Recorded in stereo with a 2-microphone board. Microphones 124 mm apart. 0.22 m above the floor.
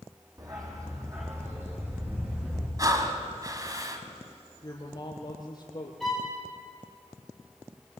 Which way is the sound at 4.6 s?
35° left (ahead or behind).